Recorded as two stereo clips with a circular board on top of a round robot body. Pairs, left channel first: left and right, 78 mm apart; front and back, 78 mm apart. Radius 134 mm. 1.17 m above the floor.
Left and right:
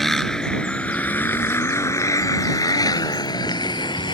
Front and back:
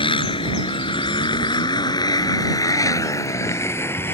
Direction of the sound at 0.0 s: 5° left.